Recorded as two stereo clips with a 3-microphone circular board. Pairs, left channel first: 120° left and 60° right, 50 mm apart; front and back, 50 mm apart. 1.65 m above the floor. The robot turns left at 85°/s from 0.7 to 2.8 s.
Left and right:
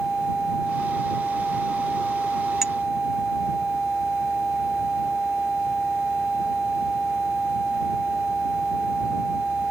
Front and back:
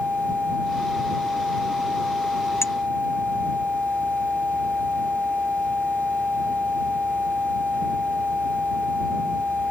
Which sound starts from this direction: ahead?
A clink, at 2.6 s.